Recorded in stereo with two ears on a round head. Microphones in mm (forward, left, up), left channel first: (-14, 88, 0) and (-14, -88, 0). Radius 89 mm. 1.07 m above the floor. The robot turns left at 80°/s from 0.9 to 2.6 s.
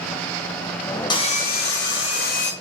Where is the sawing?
155° left, 0.6 m; by 2.5 s 40° left, 0.6 m.